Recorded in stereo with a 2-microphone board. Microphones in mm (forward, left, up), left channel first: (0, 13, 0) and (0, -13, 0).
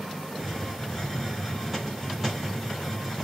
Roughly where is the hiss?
Centre.